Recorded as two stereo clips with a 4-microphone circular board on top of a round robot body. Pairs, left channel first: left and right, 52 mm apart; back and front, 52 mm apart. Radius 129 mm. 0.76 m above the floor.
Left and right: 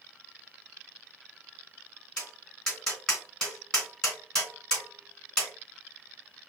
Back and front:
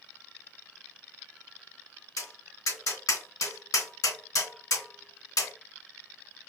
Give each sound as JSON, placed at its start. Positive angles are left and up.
{"t": 2.2, "sound": "tapping", "azimuth_deg": 165, "distance_m": 3.0}